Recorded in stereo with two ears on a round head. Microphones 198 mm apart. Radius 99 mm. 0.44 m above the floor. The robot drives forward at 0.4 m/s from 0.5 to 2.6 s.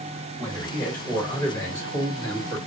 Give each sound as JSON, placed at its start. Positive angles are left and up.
{"t": 0.4, "sound": "a man speaking", "side_deg": 5, "distance_m": 1.4}